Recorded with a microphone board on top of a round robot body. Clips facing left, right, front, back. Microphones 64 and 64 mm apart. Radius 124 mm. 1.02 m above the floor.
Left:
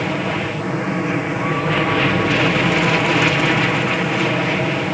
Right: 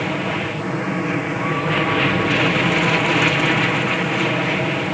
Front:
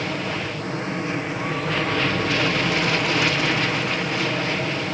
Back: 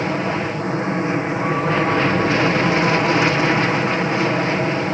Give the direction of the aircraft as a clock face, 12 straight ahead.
6 o'clock.